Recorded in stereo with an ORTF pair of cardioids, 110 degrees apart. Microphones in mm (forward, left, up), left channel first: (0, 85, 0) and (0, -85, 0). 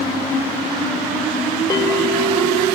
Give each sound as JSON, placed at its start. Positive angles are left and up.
{"t": 1.7, "sound": "a bell", "azimuth_deg": 25, "distance_m": 0.5}